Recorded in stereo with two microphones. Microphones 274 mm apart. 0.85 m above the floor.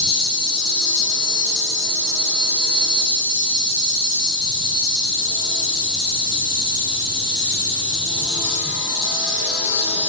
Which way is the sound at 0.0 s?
15° right (ahead or behind).